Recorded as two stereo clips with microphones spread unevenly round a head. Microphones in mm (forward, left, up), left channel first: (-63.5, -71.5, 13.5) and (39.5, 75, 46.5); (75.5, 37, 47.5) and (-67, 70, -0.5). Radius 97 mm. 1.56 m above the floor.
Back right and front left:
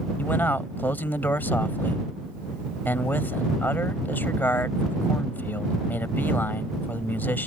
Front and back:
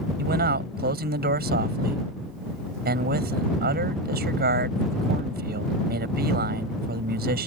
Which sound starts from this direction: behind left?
A man speaking, at 0.2 s.